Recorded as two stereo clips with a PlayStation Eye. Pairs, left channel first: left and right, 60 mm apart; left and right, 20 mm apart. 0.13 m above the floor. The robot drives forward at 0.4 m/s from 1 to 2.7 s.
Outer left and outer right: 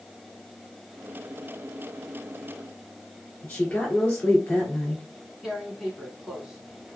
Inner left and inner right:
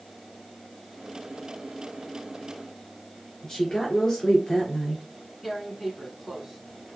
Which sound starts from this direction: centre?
Tearing paper, at 5.4 s.